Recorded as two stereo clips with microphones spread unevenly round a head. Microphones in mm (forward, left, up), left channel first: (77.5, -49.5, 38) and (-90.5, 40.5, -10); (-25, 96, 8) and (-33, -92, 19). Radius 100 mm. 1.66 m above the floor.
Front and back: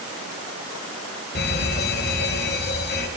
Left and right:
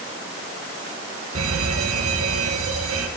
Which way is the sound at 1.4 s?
70° right.